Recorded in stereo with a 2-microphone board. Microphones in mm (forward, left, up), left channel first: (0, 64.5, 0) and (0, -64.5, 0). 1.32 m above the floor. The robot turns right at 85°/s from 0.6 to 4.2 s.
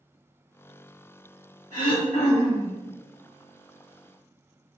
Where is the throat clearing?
70° left, 2.0 m; by 2.8 s 160° left, 2.0 m.